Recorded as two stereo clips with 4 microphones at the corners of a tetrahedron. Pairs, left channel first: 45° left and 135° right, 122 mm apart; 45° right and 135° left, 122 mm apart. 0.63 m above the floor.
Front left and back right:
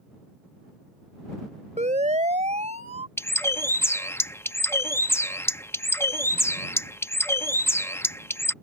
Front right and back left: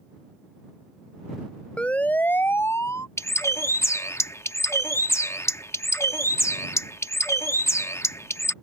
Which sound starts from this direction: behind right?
A siren, at 1.8 s.